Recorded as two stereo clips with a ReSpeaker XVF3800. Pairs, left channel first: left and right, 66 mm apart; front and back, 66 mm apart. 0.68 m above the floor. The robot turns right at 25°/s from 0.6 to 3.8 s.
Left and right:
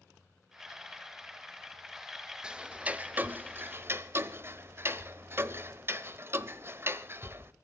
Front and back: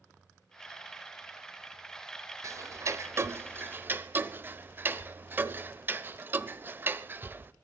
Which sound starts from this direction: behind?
Ticking, at 2.4 s.